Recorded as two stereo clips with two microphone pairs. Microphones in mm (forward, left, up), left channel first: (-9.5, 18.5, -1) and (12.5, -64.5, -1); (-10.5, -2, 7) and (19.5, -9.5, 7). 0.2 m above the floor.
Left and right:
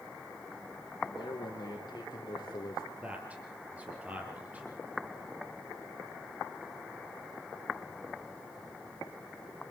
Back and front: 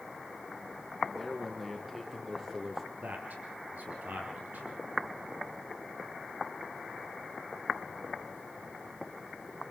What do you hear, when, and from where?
1.0 s a man speaking: 80° left, 5 m; by 2.8 s 65° left, 5 m
3.0 s a man speaking: straight ahead, 4.5 m